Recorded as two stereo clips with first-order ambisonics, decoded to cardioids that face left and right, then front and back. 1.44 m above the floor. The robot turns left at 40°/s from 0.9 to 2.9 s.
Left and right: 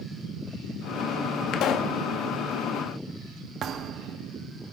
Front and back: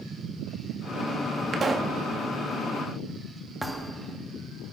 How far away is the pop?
About 1.0 m.